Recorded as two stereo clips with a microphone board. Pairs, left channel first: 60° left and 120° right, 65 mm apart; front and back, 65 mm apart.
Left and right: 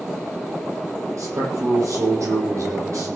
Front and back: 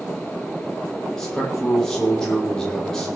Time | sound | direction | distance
1.2 | a man speaking | 80° right | 8 m